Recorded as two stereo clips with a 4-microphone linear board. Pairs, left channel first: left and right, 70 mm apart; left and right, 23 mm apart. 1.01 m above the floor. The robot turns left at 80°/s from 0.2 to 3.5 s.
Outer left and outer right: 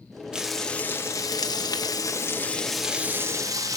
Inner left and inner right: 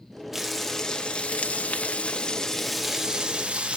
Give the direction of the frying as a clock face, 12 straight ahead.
6 o'clock.